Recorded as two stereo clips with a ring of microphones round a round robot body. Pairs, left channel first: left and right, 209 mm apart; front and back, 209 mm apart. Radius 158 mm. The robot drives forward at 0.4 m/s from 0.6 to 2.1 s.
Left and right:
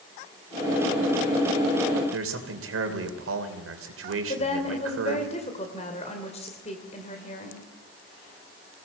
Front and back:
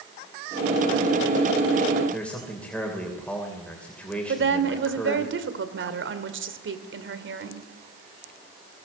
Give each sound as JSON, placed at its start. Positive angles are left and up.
{"t": 2.1, "sound": "a man speaking", "azimuth_deg": -85, "distance_m": 3.0}
{"t": 4.3, "sound": "a woman speaking", "azimuth_deg": 155, "distance_m": 2.5}